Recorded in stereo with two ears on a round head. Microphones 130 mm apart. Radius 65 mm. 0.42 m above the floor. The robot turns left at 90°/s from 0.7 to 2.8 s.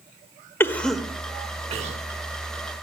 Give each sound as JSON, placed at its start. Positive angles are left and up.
{"t": 0.6, "sound": "a cough", "side_deg": 15, "distance_m": 1.0}